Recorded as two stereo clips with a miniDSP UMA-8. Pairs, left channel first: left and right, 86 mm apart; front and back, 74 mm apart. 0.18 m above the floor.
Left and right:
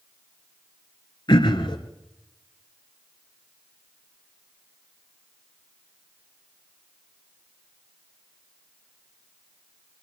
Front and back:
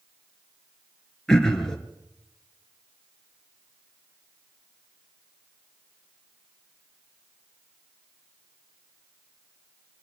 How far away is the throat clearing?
About 2.5 m.